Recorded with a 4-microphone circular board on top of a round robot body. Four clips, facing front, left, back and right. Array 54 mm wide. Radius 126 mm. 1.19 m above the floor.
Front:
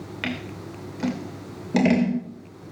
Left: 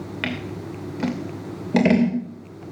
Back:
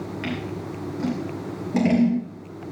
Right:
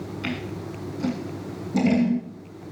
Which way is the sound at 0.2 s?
70° left.